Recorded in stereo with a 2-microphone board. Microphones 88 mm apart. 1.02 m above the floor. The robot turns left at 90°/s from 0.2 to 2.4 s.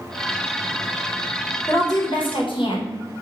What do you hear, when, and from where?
1.7 s a woman speaking: 150° left, 0.7 m; by 2.9 s 85° left, 0.7 m